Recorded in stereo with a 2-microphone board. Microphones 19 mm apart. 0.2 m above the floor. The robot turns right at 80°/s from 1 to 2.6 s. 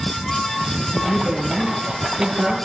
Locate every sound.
0.9 s a woman speaking: 170° left, 3.5 m; by 2.5 s 65° right, 3.5 m